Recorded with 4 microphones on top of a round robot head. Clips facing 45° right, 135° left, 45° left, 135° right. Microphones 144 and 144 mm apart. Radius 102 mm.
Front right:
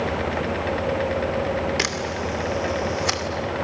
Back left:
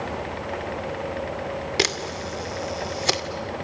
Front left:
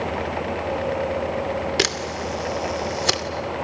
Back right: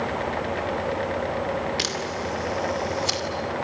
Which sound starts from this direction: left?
A camera shutter, at 1.8 s.